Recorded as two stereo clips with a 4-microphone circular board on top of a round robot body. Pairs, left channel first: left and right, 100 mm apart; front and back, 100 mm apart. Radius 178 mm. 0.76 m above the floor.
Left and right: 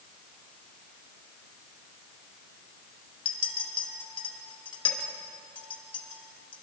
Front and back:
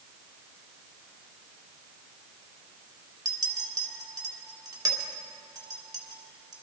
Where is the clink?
125° left, 1.9 m.